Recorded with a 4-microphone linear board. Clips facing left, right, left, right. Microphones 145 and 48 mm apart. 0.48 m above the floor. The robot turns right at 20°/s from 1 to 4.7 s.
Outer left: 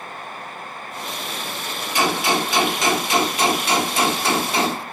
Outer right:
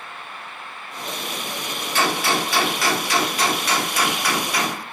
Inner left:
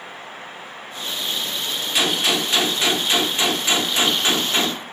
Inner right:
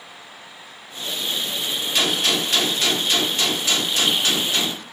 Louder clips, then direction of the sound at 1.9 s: Outer left 2 dB, inner left 1 dB; 15° left (ahead or behind).